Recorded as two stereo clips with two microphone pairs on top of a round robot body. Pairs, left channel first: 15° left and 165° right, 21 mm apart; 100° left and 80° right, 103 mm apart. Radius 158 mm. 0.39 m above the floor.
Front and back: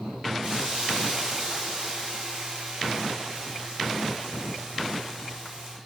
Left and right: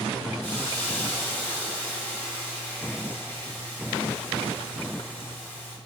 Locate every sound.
0.4 s a hiss: 175° left, 5.5 m